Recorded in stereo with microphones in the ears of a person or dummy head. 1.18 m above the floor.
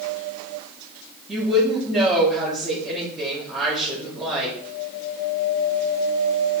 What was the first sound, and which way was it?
A woman speaking, 5° right (ahead or behind).